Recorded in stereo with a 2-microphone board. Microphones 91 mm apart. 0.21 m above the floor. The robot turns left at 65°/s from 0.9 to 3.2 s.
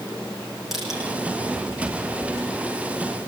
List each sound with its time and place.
0.7 s crushing: 5° right (ahead or behind), 10 m; by 1.0 s 10° right (ahead or behind), 10 m